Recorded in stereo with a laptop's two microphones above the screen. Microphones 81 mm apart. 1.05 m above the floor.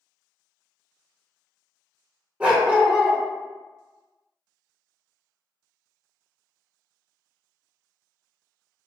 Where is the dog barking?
15° right (ahead or behind), 1.3 m.